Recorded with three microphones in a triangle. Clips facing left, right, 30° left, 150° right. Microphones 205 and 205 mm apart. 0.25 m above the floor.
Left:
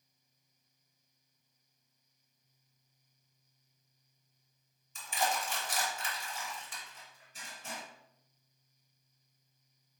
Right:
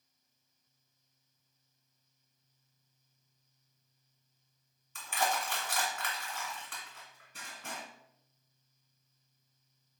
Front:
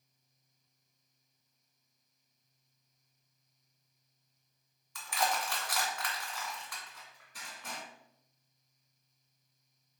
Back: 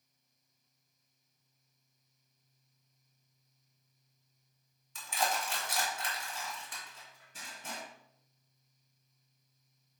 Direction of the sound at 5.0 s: 85° right.